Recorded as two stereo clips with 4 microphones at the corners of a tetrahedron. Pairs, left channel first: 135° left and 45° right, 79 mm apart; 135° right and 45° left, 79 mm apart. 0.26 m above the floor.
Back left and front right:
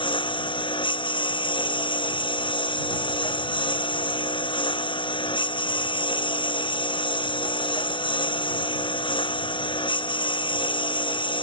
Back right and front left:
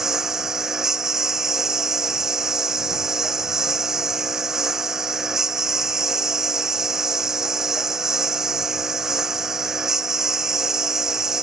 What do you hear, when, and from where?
0.0 s a lawn mower: 130° left